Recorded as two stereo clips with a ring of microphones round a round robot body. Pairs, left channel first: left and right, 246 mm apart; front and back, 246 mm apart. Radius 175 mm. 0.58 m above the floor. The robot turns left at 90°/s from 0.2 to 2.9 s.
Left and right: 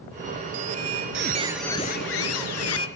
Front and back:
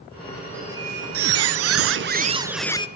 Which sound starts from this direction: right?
A squeak, at 0.5 s.